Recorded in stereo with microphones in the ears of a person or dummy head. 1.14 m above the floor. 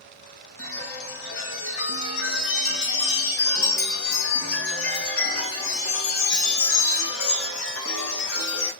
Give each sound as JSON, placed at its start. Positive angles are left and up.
{"t": 0.6, "sound": "a chime", "side_deg": 70, "distance_m": 2.0}